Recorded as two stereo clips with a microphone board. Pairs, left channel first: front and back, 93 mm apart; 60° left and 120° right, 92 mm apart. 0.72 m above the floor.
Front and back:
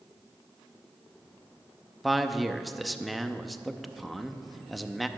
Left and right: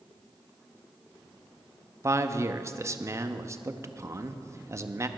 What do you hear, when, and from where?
2.0 s a man speaking: 90° right, 0.5 m